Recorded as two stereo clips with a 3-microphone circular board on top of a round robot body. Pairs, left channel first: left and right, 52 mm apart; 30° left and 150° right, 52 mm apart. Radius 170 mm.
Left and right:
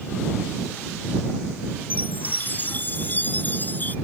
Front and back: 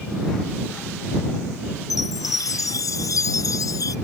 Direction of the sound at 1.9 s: 30° left.